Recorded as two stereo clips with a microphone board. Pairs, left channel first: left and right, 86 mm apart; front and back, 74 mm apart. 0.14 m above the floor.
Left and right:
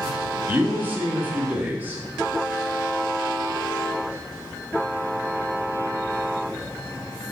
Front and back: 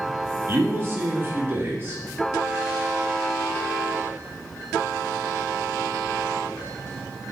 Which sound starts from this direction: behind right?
A man speaking, at 0.5 s.